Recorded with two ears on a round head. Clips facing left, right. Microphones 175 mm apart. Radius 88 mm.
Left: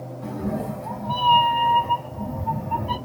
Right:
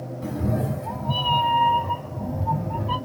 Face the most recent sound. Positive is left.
turn(degrees=50)  # may be behind; listen again after turning